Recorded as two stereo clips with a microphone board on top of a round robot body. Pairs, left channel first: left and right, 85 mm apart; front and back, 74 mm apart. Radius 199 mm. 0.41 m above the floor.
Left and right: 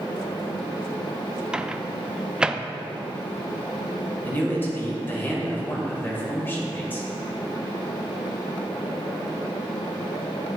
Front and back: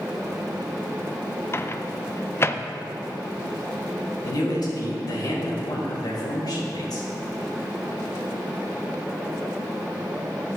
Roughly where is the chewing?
No chewing in this recording.